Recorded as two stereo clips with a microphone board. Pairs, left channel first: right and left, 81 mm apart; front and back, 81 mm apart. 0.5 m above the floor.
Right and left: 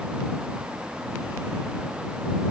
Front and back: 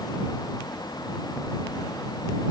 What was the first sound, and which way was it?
Only background noise.